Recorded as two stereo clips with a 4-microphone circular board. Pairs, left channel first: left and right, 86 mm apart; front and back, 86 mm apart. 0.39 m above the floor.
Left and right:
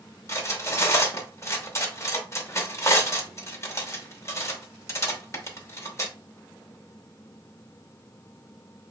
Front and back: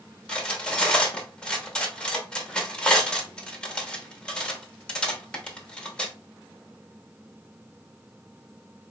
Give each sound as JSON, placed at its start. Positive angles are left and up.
{"t": 0.3, "sound": "cutlery clinking", "azimuth_deg": 70, "distance_m": 0.7}